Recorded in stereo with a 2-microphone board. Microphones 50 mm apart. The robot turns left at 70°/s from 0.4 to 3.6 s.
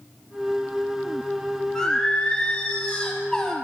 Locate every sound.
1.8 s singing: 10° left (ahead or behind), 0.8 m